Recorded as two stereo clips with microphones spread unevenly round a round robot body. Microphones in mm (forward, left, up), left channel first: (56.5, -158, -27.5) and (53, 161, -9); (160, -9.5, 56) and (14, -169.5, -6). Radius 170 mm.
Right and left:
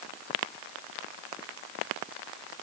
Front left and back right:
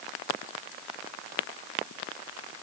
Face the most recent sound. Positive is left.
No sound to turn to.